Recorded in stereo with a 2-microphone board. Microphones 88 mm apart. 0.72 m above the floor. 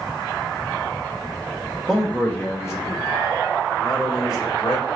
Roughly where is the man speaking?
Centre.